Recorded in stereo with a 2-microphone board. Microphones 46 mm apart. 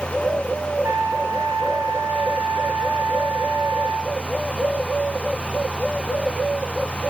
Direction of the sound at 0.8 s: 75° right (ahead or behind).